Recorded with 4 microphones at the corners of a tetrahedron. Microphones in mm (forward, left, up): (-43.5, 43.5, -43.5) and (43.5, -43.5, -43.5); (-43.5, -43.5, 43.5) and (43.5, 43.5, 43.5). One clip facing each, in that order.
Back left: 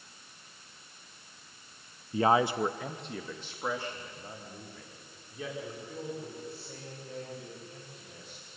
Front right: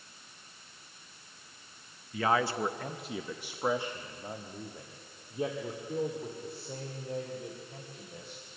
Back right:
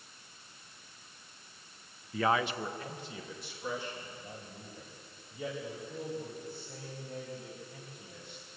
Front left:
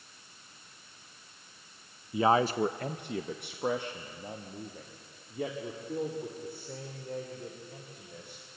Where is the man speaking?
110° left, 0.5 m; by 8.4 s 10° left, 4 m.